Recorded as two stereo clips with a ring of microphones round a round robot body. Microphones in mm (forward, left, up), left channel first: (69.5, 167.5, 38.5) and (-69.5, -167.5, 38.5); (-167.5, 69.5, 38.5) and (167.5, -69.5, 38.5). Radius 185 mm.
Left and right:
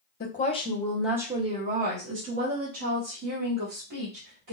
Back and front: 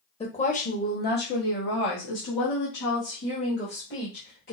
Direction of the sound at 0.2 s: 100° left.